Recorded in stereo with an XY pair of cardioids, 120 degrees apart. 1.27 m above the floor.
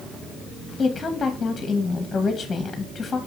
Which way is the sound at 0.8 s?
20° left.